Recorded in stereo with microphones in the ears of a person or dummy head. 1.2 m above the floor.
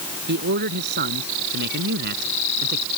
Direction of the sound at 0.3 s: 50° right (ahead or behind).